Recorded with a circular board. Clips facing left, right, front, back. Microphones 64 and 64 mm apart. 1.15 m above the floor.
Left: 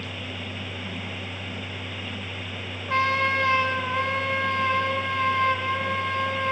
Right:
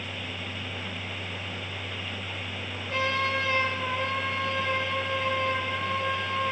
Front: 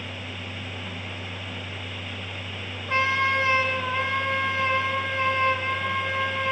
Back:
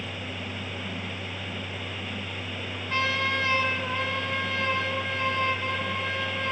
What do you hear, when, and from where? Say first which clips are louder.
2.9 s a trumpet: left 5 dB, front 4 dB; 60° left, 1.6 m